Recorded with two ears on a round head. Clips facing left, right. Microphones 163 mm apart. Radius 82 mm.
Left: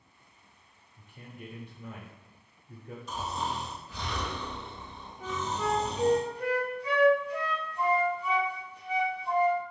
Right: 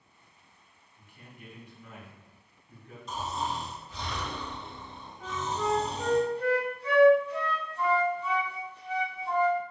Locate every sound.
1.0 s a man speaking: 25° left (ahead or behind), 0.9 m
3.1 s snoring: centre (ahead or behind), 2 m
5.2 s a flute: 15° left (ahead or behind), 1.0 m